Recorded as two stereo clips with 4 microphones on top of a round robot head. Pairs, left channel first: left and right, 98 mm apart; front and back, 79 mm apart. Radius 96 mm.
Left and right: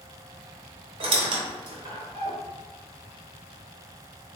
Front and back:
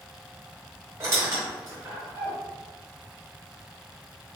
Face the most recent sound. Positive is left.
turn(degrees=-120)